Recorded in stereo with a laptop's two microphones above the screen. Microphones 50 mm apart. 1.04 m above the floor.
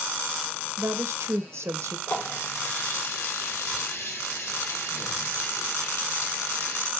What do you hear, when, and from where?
0.8 s a woman speaking: 65° right (ahead or behind), 0.7 m
2.1 s a running tap: 70° left (ahead or behind), 1.7 m